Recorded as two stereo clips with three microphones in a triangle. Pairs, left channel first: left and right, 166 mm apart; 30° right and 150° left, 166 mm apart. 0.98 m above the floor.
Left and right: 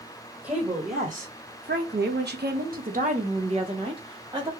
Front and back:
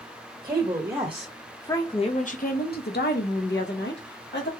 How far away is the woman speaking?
About 1.0 m.